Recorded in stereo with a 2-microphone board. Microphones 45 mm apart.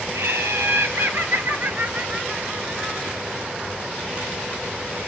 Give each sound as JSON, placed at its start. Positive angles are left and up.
{"t": 0.1, "sound": "laughter", "side_deg": -70, "distance_m": 3.0}